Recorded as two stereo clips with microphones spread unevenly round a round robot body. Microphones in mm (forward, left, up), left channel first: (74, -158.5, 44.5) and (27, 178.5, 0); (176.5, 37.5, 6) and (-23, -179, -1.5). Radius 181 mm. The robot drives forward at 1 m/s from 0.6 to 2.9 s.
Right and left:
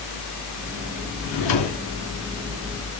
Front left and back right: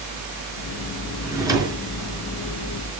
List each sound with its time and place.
1.2 s a drawer: 50° right, 4 m; by 1.8 s 60° right, 3.5 m